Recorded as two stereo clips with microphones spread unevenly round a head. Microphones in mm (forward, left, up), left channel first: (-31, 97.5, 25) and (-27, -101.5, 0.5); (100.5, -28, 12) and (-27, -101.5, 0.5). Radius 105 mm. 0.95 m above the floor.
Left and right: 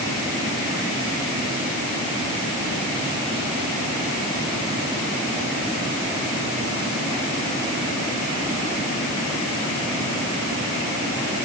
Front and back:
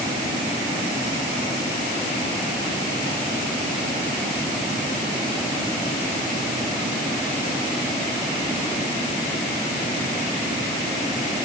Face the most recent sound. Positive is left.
No sound to turn to.